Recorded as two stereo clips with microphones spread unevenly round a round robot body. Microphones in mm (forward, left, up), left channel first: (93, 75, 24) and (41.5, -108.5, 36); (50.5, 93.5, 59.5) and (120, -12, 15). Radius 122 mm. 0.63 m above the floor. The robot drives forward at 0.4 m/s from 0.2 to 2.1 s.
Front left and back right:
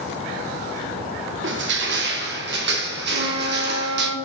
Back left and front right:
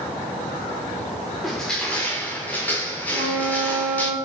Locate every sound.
1.4 s crushing: 140° right, 0.8 m; by 4.1 s 150° right, 1.0 m
3.1 s a flute: 90° right, 2.0 m